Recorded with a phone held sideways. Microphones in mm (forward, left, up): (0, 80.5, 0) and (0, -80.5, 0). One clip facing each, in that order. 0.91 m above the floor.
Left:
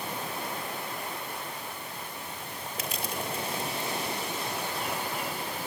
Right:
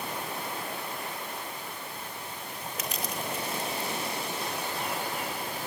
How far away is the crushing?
About 5.5 m.